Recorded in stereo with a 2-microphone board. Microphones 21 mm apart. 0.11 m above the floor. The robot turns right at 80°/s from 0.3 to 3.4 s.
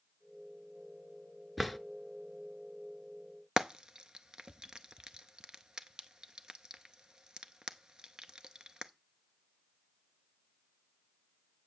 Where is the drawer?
Centre (ahead or behind), 0.6 m; by 1.8 s 10° left (ahead or behind), 0.6 m.